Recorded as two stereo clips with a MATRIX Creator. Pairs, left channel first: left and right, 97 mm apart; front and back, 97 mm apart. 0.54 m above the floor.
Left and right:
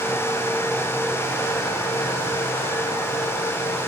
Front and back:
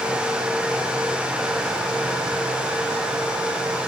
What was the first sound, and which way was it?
Only background noise.